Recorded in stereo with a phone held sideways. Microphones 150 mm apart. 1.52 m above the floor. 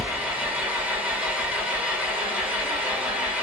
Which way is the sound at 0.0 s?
10° right (ahead or behind).